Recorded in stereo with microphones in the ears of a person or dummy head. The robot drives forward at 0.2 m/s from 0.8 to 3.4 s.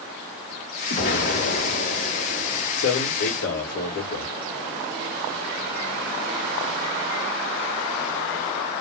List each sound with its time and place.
0.9 s an explosion: 55° left (ahead or behind), 1.1 m; by 2.6 s 60° left (ahead or behind), 1.1 m
2.8 s a man speaking: 60° left (ahead or behind), 1.2 m; by 4.3 s 55° left (ahead or behind), 1.3 m